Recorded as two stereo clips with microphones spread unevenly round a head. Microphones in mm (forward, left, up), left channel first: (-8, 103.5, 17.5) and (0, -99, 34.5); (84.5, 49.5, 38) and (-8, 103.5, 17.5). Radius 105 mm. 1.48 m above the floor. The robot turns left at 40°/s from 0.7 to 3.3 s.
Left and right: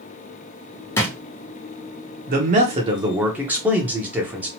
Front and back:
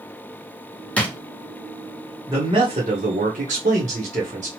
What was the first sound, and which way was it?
A drawer, 15° left.